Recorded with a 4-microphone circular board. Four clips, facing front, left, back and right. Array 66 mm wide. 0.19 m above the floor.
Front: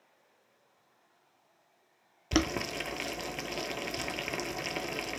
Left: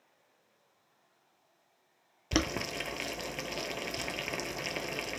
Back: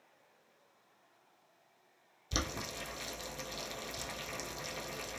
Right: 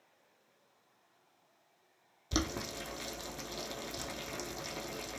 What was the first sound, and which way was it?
Boiling, 45° left.